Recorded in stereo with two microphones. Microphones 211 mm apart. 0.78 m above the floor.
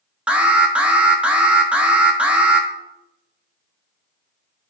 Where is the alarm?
5° right (ahead or behind), 0.8 m.